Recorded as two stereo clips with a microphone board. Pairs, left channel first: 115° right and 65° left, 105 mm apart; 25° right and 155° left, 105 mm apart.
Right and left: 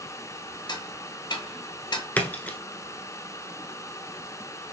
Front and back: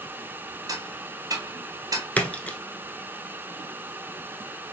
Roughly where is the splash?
Right.